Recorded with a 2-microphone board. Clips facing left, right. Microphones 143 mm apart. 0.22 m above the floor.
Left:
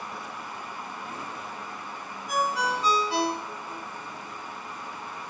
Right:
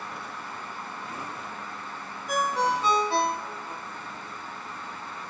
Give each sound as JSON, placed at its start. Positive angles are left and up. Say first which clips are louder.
{"t": 2.3, "sound": "a ringtone", "louder": "right 2 dB", "side_deg": -50, "distance_m": 1.8}